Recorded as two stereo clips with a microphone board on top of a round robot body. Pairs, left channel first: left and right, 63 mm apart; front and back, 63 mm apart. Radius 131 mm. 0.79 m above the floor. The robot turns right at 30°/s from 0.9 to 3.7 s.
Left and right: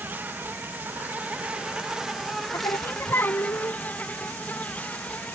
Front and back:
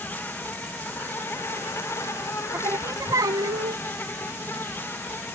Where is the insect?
45° right; by 5.4 s 35° left.